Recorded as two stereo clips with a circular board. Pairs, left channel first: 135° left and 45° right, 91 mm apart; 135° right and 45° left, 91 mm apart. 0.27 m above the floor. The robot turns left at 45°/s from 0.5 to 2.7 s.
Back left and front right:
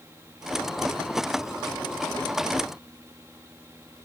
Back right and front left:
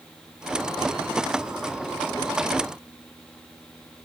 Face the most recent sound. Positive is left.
No sound to turn to.